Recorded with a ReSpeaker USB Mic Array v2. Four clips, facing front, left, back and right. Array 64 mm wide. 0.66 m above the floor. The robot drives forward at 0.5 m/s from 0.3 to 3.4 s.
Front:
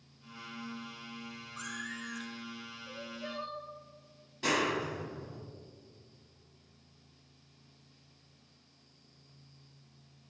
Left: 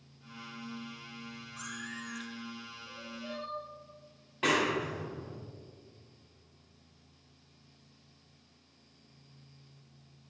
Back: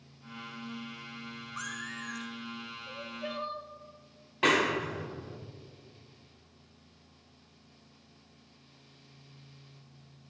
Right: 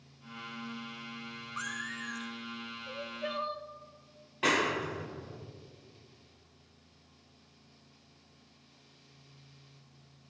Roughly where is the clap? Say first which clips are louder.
Even, back 4 dB; behind.